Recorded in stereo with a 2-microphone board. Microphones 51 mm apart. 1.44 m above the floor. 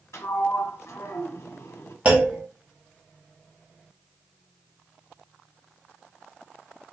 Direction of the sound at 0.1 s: 65° left (ahead or behind).